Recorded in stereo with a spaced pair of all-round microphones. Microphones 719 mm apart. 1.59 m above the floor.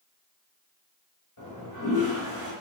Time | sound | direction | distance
1.4 | a toilet flushing | 25° left (ahead or behind) | 1.6 m